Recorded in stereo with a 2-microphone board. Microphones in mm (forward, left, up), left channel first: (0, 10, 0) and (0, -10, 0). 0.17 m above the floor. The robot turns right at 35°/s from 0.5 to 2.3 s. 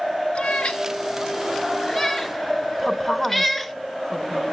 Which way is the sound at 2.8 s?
10° left (ahead or behind).